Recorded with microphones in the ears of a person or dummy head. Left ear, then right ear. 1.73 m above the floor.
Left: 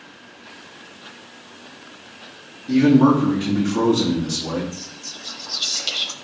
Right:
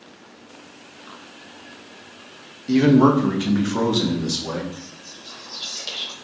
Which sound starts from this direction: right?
A man speaking, at 2.7 s.